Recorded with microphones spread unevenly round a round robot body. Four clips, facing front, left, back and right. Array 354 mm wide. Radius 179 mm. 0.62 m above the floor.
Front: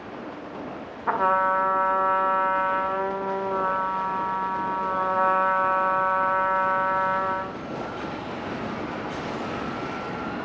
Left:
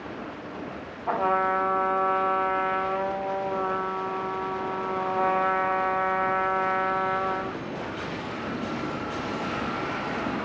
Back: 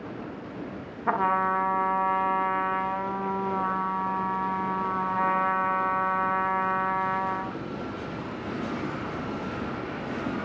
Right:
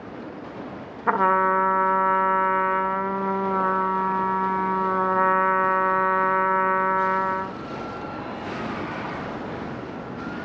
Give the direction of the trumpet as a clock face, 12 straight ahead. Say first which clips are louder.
Right 4 dB, front 3 dB; 4 o'clock.